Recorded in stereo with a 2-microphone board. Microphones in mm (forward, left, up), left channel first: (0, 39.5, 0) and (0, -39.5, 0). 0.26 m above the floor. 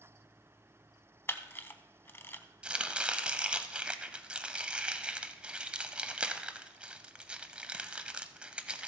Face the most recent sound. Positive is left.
turn(degrees=-15)  # may be behind; listen again after turning